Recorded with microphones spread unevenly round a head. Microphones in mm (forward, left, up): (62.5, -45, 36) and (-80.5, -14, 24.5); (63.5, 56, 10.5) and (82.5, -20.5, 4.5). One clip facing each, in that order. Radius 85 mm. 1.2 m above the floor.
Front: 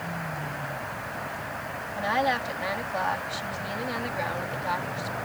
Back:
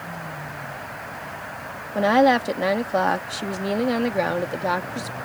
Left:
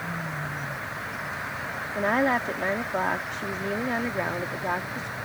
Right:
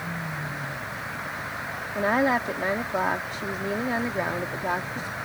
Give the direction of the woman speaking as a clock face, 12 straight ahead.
5 o'clock.